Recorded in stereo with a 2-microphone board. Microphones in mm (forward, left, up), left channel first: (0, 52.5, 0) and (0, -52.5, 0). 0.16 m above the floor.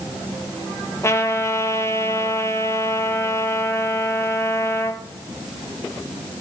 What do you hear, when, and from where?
1.0 s a trumpet: 25° left (ahead or behind), 1.1 m